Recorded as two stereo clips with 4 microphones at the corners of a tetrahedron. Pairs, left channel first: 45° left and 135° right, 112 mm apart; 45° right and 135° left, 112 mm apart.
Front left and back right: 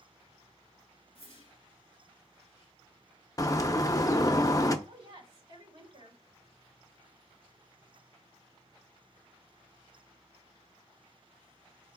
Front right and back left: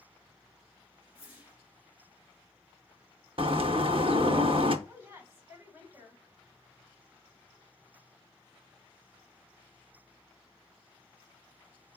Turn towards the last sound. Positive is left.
turn(degrees=-155)